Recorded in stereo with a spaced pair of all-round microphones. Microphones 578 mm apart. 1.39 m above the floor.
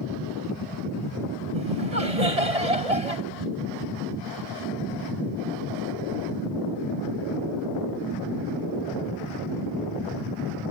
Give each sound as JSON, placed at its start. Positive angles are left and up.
{"t": 1.5, "sound": "laughter", "side_deg": -90}